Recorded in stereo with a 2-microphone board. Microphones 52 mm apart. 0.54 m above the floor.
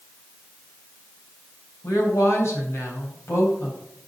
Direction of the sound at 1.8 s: 60° left (ahead or behind).